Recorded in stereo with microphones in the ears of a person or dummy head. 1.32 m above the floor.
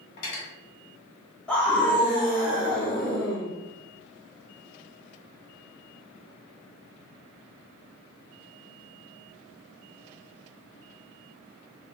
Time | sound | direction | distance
0.2 | cutlery clinking | 70° left (ahead or behind) | 1.6 m
1.5 | a scream | 5° left (ahead or behind) | 1.0 m